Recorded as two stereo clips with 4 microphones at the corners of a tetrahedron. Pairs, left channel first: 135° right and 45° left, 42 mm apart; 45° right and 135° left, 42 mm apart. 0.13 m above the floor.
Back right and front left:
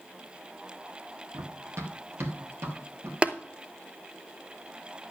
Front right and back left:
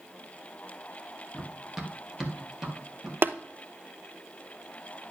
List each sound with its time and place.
1.3 s running footsteps: 50° left, 1.7 m; by 3.1 s 60° left, 3.5 m
3.2 s tapping: 110° left, 0.7 m